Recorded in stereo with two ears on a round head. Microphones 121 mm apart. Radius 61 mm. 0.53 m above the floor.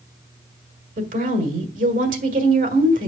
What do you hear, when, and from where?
1.0 s a woman speaking: 65° right (ahead or behind), 1.7 m